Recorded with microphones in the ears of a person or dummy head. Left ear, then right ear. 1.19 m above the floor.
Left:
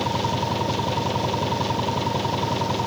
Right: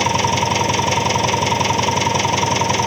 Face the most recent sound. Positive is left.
turn(degrees=-60)  # may be behind; listen again after turning